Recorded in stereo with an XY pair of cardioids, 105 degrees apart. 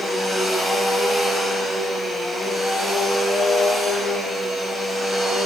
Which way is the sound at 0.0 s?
10° right.